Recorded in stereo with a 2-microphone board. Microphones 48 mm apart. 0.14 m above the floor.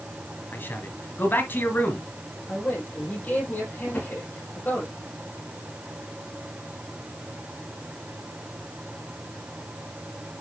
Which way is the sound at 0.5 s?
45° left (ahead or behind).